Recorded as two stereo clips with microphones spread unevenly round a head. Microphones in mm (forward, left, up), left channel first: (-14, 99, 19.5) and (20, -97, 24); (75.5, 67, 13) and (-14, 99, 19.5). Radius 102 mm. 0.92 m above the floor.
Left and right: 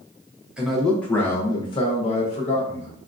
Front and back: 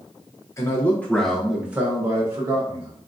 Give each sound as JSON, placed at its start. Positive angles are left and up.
{"t": 0.6, "sound": "a man speaking", "azimuth_deg": 5, "distance_m": 0.9}